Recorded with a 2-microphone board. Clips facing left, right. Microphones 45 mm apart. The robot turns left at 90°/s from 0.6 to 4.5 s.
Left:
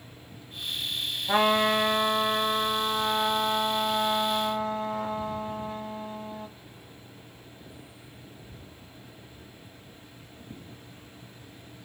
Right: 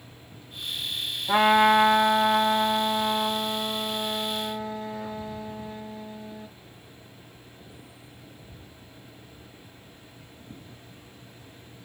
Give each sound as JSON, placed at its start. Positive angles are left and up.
{"t": 1.3, "sound": "a trumpet", "azimuth_deg": -5, "distance_m": 1.5}